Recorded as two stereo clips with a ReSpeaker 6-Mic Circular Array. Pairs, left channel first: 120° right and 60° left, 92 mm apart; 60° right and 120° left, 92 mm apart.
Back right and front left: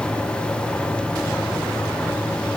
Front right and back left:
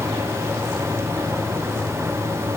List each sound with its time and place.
Only background noise.